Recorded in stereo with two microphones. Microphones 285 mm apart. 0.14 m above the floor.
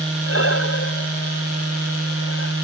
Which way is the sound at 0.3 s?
50° left (ahead or behind).